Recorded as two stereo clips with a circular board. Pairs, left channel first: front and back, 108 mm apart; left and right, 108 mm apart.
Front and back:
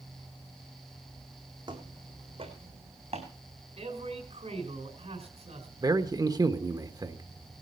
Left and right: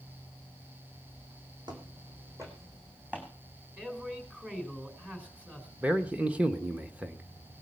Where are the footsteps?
135° right, 3 m; by 3.3 s 170° right, 3.5 m.